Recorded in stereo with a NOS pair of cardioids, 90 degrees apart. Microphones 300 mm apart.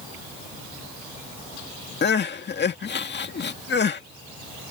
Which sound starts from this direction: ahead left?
Crying, at 2.0 s.